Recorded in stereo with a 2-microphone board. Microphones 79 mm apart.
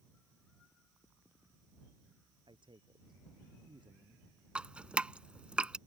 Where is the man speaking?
80° right.